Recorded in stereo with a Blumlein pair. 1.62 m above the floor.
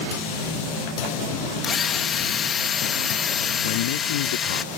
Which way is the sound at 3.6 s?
55° left.